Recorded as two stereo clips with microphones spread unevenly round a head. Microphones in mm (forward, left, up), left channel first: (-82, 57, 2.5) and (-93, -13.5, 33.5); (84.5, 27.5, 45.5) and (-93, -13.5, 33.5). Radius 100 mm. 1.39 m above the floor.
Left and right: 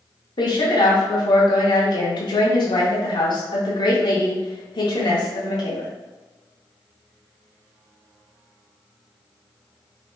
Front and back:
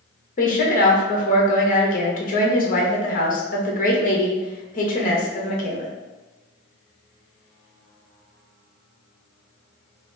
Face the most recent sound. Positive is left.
turn(degrees=60)